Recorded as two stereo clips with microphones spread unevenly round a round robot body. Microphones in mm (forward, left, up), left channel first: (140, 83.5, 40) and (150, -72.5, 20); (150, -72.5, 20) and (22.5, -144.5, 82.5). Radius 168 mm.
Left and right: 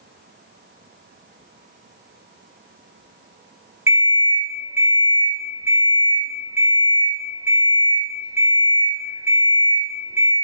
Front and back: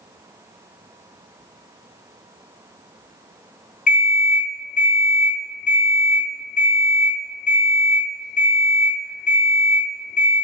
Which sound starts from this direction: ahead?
An alarm clock, at 3.9 s.